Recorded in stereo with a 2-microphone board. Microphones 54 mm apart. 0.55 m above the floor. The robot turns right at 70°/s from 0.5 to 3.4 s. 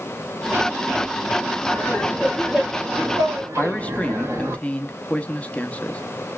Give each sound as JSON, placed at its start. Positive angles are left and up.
{"t": 1.7, "sound": "laughter", "azimuth_deg": 130, "distance_m": 2.0}
{"t": 3.6, "sound": "a man speaking", "side_deg": 25, "distance_m": 0.7}